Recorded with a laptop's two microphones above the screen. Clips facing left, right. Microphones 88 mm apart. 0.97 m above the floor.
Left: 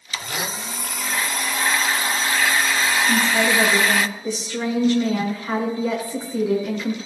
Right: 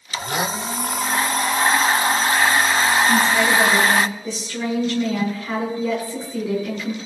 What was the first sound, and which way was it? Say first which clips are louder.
A blender: right 5 dB; 35° right (ahead or behind).